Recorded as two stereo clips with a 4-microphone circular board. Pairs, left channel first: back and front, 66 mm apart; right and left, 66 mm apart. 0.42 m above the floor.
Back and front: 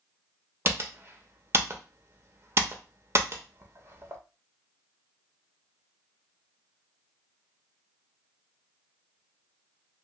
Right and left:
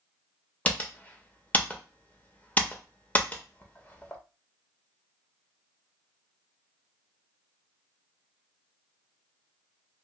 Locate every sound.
0.7 s typing on a keyboard: 30° right, 0.6 m